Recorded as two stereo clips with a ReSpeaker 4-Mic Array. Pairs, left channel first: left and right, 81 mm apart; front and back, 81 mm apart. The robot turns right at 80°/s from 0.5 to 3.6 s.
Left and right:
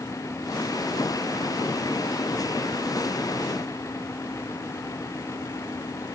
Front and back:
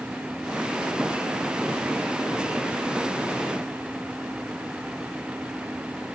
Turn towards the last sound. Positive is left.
No sound to turn to.